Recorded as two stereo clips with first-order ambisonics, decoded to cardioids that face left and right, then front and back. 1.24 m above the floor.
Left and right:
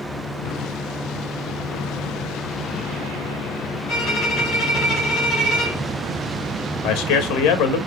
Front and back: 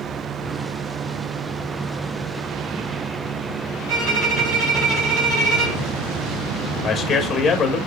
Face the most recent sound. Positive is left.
turn(degrees=70)